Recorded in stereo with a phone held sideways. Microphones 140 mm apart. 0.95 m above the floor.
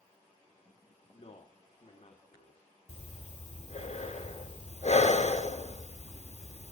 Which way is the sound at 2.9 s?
55° left (ahead or behind).